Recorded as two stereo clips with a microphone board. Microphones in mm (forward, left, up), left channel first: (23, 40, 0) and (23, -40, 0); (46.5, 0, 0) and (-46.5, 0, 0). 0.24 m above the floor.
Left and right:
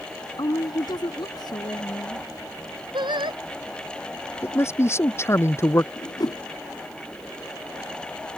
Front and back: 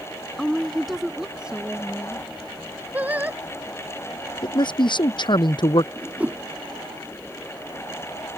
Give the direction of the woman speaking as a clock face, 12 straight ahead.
9 o'clock.